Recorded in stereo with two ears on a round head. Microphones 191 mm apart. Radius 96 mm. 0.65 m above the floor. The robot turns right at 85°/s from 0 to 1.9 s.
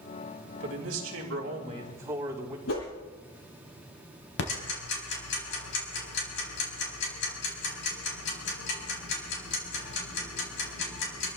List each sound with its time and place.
0.6 s a man speaking: 125° right, 4.5 m; by 2.6 s 15° right, 4.5 m
2.7 s a whoosh: 65° left (ahead or behind), 9 m
4.4 s ticking: 60° left (ahead or behind), 4.5 m